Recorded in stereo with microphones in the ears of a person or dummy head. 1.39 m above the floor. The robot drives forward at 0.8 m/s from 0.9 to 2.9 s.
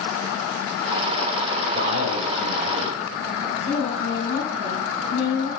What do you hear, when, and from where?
1.7 s a man speaking: 70° right (ahead or behind), 3 m; by 3.0 s 85° right, 3 m
3.6 s a woman speaking: 80° left, 3 m